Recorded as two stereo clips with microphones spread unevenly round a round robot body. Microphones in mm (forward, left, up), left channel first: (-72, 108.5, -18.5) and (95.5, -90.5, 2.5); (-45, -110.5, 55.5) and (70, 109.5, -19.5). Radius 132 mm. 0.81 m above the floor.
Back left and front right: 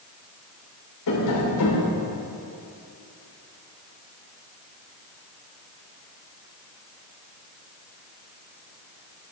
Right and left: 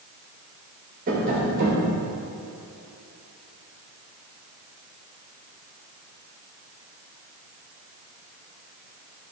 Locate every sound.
1.1 s tapping: 115° left, 3 m